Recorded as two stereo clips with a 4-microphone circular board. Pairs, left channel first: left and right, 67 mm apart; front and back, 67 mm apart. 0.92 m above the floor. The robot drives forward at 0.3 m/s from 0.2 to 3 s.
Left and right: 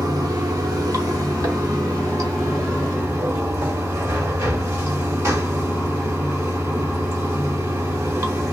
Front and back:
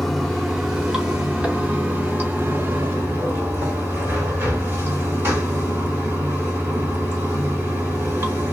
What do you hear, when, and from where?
0.0 s running water: 85° right, 1.1 m; by 8.5 s 125° right, 1.3 m